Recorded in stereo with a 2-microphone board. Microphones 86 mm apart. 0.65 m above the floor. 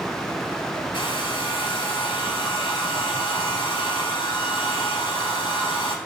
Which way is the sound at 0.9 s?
70° left (ahead or behind).